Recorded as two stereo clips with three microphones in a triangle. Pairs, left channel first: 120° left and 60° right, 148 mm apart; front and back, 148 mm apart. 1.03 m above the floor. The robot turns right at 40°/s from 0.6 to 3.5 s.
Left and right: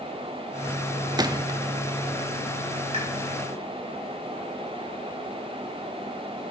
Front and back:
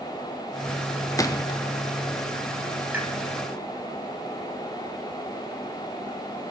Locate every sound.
1.2 s a gunshot: 40° right, 0.8 m; by 1.6 s 25° right, 0.8 m
2.9 s a pop: 105° right, 3.5 m; by 3.1 s 95° right, 3.5 m